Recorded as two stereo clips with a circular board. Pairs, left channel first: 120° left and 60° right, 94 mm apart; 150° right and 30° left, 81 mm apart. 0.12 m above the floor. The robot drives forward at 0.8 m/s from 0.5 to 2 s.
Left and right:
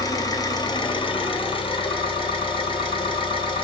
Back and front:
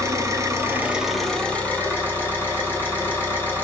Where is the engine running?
75° left, 0.7 m; by 3.6 s 150° left, 1.2 m.